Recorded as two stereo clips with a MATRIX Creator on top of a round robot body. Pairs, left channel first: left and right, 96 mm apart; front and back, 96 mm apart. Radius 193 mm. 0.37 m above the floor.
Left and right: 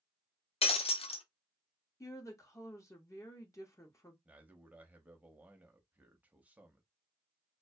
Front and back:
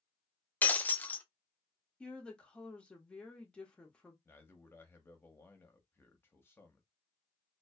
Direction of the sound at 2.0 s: 70° left.